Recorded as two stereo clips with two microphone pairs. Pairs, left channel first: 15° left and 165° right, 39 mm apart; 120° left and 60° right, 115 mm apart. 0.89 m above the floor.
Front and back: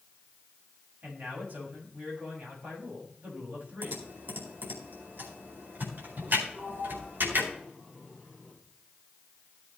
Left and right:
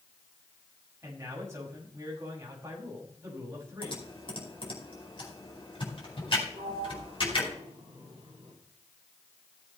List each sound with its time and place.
1.0 s a man speaking: 120° right, 6 m
3.8 s typing on a keyboard: 165° left, 4.5 m
6.5 s a sliding door: 100° right, 7 m